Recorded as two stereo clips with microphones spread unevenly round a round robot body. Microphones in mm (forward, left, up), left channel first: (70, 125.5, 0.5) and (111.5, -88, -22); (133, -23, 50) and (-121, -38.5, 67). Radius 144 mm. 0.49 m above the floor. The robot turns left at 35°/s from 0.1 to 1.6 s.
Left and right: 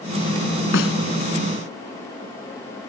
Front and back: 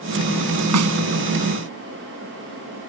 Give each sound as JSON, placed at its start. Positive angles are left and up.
{"t": 0.7, "sound": "a snare drum", "azimuth_deg": 155}